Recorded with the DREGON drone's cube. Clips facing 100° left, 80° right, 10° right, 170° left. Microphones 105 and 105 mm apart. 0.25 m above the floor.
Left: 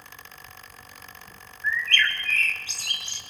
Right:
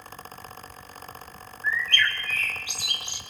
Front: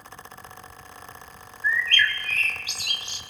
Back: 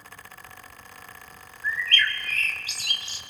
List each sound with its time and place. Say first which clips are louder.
1.6 s a bird: even, front 3 dB; 150° right, 1.8 m